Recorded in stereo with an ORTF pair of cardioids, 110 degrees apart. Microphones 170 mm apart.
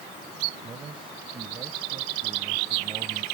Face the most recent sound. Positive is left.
turn(degrees=-30)